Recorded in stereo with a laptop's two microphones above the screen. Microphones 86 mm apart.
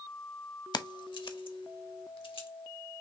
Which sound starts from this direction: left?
Keys jangling, at 0.7 s.